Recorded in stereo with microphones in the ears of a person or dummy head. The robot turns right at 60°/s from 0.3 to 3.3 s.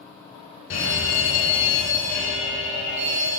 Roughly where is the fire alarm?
Left.